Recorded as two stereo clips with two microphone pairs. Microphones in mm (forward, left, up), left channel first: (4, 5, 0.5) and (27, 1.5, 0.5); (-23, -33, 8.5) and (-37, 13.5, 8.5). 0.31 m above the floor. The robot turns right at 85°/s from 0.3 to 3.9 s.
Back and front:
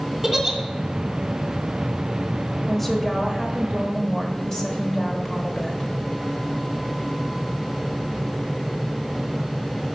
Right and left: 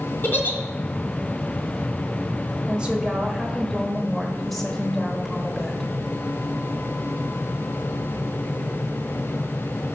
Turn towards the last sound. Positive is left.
turn(degrees=-160)